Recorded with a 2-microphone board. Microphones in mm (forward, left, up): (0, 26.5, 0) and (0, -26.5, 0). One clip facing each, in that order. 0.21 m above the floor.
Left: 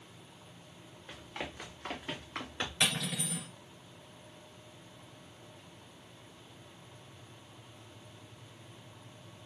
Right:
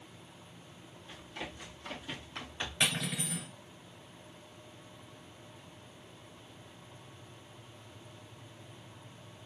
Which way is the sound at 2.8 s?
15° right (ahead or behind).